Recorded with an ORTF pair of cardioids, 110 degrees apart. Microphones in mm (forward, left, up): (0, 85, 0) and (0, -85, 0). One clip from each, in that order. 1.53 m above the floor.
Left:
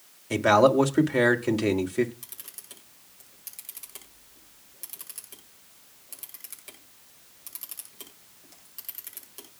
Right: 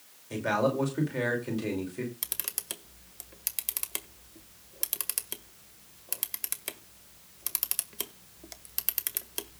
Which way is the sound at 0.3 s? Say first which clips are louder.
Left 9 dB; 50° left.